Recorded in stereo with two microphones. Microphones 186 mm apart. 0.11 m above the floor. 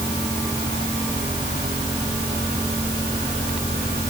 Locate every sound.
Only background noise.